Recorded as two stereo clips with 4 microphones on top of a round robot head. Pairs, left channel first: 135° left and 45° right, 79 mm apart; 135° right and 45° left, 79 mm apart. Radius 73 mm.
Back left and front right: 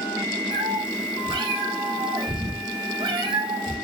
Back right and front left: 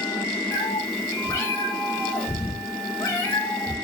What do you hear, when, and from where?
0.5 s a cat meowing: 80° right, 2.5 m